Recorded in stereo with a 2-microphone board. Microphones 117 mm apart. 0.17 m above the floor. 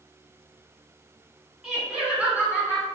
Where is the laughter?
5° right (ahead or behind), 1.2 m; by 2.9 s 15° right (ahead or behind), 2 m.